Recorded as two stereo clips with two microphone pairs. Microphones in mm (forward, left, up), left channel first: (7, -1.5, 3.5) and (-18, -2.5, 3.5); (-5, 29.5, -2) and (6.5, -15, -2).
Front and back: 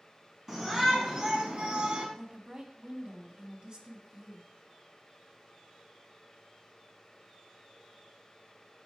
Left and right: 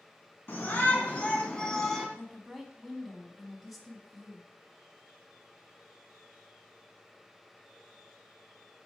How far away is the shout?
About 1.7 m.